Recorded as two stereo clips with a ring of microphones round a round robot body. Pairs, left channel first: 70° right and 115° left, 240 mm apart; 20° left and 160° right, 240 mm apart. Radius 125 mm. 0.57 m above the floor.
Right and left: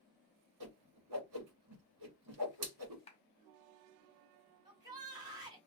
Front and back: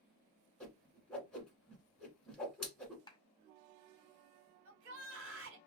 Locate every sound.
0.6 s a whoosh: 110° left, 1.4 m
3.1 s a clap: 30° right, 1.0 m
4.7 s a shout: 175° right, 2.5 m